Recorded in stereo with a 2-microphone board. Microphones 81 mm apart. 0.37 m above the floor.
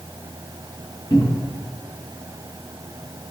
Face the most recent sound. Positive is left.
turn(degrees=70)  # may be behind; listen again after turning